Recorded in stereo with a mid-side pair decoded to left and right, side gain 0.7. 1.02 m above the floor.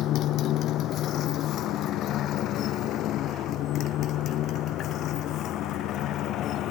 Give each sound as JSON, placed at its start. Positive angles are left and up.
{"t": 0.0, "sound": "a motorcycle", "azimuth_deg": 50}